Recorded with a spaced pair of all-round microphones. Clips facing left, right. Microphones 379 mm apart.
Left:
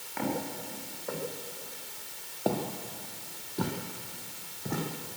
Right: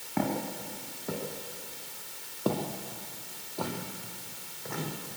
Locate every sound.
0.2 s footsteps: 60° right (ahead or behind), 4.5 m; by 4.8 s 50° left (ahead or behind), 4.5 m